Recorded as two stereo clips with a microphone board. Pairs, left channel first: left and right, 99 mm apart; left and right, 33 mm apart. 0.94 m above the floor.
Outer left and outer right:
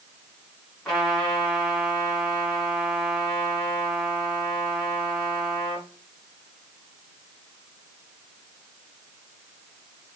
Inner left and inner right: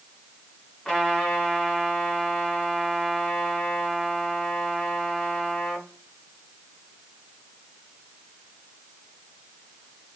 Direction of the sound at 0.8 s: 10° left (ahead or behind).